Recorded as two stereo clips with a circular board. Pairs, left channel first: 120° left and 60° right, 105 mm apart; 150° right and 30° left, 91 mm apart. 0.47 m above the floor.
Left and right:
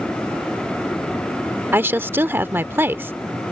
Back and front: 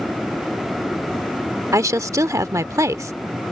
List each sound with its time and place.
1.7 s a woman speaking: straight ahead